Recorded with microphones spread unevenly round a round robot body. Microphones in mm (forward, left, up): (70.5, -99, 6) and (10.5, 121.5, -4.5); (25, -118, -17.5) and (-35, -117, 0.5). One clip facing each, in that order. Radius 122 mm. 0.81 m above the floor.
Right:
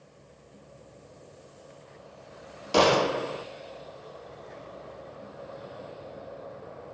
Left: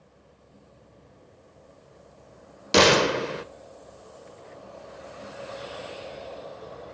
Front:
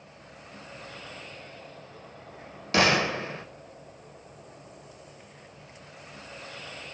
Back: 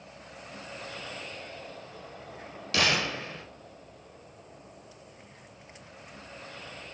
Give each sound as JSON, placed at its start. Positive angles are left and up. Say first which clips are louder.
{"t": 2.7, "sound": "a gunshot", "louder": "left 3 dB, front 5 dB", "azimuth_deg": 60, "distance_m": 0.6}